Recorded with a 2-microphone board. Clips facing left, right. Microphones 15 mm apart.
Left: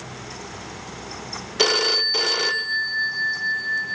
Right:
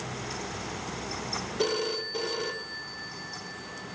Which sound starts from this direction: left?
A phone ringing, at 1.6 s.